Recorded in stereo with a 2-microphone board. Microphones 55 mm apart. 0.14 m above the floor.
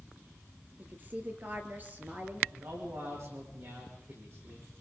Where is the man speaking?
55° right (ahead or behind), 9 m.